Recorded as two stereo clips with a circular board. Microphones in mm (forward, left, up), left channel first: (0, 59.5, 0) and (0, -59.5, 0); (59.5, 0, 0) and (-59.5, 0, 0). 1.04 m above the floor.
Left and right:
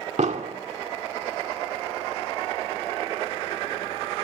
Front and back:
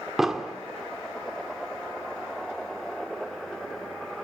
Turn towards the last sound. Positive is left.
turn(degrees=-95)